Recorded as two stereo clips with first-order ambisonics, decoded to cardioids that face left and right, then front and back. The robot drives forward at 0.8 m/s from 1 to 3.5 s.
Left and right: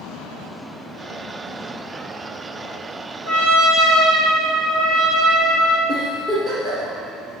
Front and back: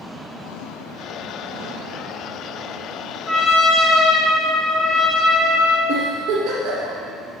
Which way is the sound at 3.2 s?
80° right.